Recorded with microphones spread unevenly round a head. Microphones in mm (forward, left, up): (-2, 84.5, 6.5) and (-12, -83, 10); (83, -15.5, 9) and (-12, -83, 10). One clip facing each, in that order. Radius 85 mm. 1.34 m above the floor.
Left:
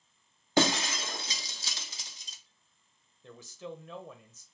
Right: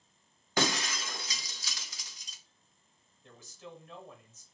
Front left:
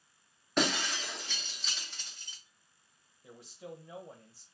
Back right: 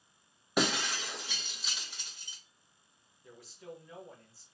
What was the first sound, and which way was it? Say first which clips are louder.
Breaking glass: left 5 dB, even; 140° left.